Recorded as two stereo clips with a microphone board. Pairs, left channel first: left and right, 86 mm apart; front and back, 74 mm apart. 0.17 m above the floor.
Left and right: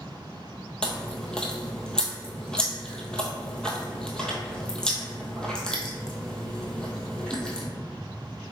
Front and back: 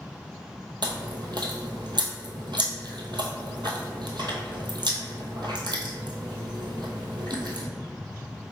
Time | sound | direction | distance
0.8 | chewing | 170° left | 0.8 m